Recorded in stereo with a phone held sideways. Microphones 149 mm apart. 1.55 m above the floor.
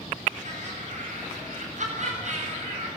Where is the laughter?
55° right (ahead or behind), 7.5 m.